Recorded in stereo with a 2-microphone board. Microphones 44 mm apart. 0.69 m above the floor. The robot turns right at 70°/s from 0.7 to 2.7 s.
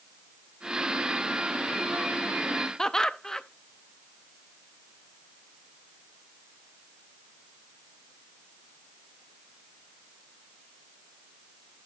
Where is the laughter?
15° left (ahead or behind), 0.5 m.